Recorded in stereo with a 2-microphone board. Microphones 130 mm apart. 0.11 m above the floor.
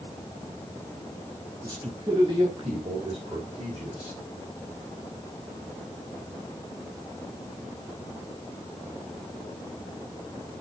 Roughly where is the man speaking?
Right.